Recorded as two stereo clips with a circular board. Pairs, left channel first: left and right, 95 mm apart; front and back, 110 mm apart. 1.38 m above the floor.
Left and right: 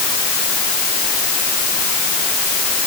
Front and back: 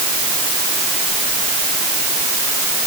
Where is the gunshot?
No gunshot in this recording.